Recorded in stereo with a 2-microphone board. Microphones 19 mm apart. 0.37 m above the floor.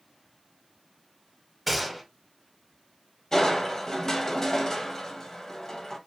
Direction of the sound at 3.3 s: 25° left (ahead or behind).